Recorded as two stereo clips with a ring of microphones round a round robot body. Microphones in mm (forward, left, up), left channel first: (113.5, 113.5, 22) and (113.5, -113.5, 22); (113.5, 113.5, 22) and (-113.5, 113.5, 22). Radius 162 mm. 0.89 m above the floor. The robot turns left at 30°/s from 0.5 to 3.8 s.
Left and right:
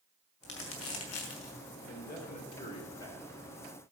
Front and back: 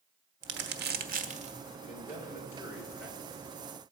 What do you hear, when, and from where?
0.4 s crumpling: 150° left, 1.2 m; by 1.5 s 115° left, 1.2 m
1.8 s a man speaking: 55° left, 3.5 m; by 3.3 s 10° left, 3.5 m